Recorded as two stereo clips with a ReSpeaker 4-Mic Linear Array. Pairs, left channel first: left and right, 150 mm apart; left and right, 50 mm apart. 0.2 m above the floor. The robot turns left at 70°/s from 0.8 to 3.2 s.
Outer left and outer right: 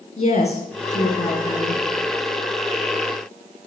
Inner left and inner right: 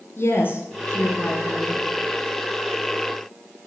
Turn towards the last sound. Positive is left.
turn(degrees=-40)